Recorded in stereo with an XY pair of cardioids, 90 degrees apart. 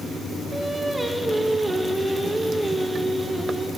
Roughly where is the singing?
Ahead.